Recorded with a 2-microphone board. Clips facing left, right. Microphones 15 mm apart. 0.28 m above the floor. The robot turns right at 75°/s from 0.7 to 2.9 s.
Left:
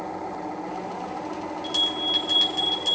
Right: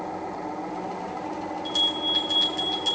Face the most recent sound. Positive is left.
turn(degrees=180)